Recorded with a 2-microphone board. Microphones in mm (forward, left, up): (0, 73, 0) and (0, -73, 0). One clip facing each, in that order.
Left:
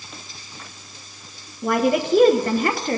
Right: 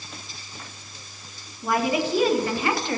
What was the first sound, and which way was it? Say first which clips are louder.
A woman speaking: left 4 dB; 55° left (ahead or behind).